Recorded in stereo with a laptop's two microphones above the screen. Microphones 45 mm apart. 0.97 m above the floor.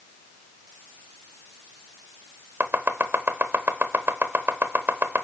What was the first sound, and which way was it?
Chopping, 60° right (ahead or behind).